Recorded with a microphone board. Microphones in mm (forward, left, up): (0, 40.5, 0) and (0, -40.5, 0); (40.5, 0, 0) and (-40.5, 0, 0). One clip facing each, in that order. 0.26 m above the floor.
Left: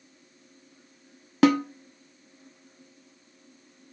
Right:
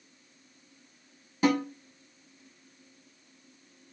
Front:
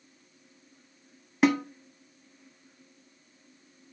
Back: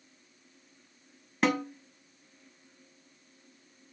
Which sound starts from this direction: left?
A snare drum, at 1.4 s.